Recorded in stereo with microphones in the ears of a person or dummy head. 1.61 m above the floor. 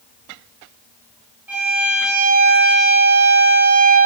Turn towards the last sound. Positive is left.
turn(degrees=-10)  # may be behind; listen again after turning